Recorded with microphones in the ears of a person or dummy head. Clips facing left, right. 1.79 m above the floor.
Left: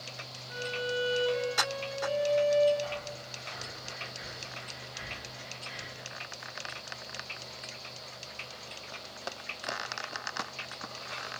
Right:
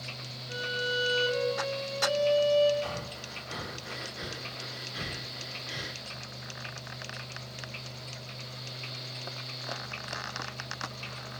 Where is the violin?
60° right (ahead or behind), 5 m.